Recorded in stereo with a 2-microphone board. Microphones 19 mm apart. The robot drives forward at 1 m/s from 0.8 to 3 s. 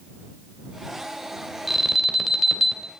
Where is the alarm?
15° right (ahead or behind), 2.5 m; by 2.9 s 10° right (ahead or behind), 3.5 m.